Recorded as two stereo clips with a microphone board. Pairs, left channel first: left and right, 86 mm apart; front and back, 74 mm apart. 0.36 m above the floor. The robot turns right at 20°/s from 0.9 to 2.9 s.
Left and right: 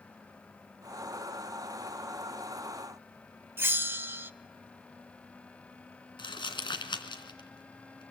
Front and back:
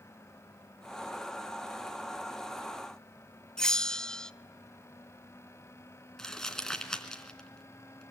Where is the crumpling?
80° left, 2.5 m.